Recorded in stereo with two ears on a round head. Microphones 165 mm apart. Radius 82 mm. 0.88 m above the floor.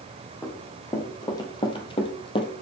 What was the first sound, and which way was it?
Running footsteps, 15° left (ahead or behind).